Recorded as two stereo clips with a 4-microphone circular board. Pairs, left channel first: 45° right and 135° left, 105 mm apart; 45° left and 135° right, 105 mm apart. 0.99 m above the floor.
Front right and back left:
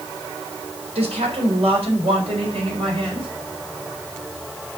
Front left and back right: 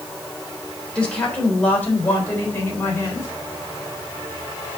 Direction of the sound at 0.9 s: 125° left.